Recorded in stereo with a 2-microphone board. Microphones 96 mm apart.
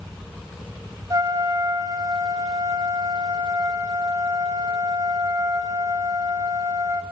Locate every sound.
1.1 s a trumpet: 40° right (ahead or behind), 0.6 m